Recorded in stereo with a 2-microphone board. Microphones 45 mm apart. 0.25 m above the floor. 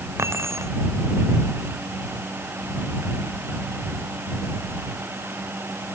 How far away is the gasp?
I don't hear a gasp.